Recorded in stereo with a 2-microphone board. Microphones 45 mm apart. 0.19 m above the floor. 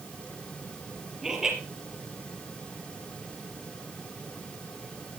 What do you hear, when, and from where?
1.2 s laughter: 10° right (ahead or behind), 5 m